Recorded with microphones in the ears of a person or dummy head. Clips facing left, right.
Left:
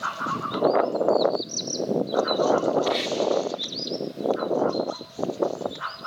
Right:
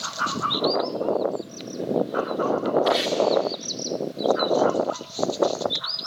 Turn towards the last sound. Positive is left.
turn(degrees=-5)  # may be behind; listen again after turning